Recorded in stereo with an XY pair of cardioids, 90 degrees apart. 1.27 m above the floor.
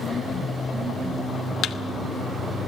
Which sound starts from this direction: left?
A thud, at 1.6 s.